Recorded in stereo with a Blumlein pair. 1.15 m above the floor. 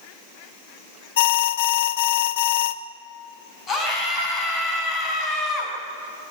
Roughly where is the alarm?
Ahead left.